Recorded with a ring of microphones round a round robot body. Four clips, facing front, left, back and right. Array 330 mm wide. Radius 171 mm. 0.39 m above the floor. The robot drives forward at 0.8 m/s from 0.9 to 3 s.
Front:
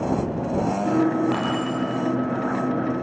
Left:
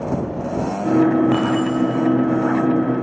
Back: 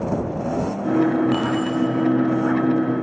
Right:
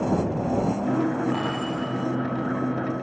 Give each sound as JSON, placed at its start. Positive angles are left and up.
{"t": 1.3, "sound": "keys jangling", "azimuth_deg": 100, "distance_m": 7.5}